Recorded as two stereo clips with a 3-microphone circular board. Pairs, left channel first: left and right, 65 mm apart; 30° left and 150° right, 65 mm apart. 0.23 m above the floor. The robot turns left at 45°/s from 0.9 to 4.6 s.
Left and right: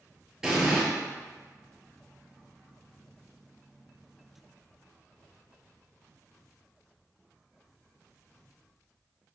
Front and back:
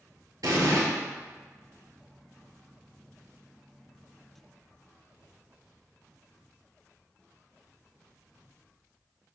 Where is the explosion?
170° right, 0.9 m.